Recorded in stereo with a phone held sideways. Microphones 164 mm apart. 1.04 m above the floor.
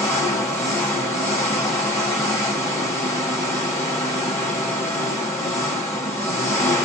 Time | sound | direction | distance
0.0 | an engine running | 15° left (ahead or behind) | 1.5 m